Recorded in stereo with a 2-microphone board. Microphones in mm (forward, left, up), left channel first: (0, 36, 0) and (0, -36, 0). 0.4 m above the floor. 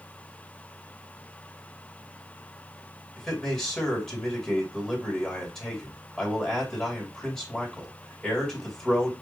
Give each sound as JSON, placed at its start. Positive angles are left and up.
{"t": 3.2, "sound": "a man speaking", "side_deg": 5, "distance_m": 2.0}